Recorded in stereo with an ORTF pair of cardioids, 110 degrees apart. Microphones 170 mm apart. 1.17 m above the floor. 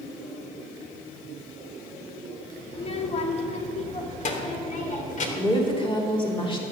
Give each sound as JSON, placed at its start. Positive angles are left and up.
{"t": 2.7, "sound": "a child speaking", "azimuth_deg": 40, "distance_m": 2.0}
{"t": 5.4, "sound": "a woman speaking", "azimuth_deg": 30, "distance_m": 4.0}